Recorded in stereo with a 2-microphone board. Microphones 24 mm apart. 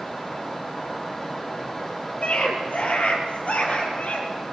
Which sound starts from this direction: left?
A scream, at 2.2 s.